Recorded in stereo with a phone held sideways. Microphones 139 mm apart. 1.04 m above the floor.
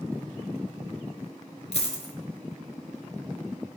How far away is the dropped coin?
About 1.5 m.